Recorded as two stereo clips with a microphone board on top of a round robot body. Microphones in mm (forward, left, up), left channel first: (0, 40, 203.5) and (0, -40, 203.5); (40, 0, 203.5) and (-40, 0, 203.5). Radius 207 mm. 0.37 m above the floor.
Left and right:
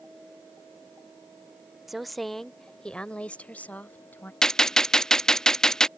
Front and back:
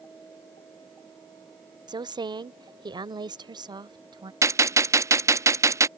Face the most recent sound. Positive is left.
turn(degrees=170)